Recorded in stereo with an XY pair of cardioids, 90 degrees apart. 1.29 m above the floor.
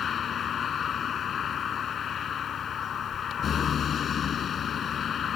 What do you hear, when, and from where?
0.0 s a vehicle: 65° left